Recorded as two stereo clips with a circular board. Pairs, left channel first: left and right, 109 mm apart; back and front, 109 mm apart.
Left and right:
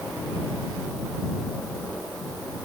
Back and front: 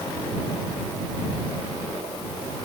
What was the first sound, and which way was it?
Only background noise.